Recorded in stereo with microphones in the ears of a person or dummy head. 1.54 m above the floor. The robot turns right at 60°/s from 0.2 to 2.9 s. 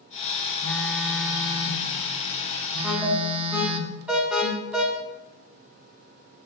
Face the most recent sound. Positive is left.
turn(degrees=-5)  # may be behind; listen again after turning